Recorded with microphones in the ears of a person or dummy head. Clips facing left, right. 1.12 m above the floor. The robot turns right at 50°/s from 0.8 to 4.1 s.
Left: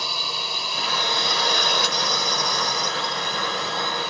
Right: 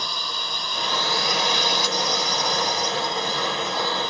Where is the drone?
10° left; by 4.1 s 175° left.